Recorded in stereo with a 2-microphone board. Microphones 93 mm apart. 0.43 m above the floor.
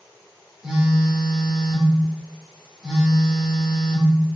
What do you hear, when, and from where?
0.6 s a phone buzzing: 5° right (ahead or behind), 1.1 m